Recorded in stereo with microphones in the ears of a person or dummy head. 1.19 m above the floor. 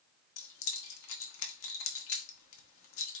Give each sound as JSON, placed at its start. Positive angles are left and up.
{"t": 0.4, "sound": "keys jangling", "side_deg": 65, "distance_m": 1.0}